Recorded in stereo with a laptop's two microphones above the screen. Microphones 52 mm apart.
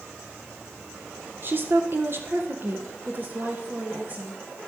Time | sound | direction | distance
1.4 | a woman speaking | 45° right (ahead or behind) | 0.9 m